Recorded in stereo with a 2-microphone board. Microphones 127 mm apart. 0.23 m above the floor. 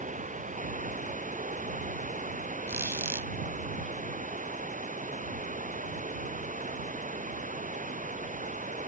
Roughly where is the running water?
Right.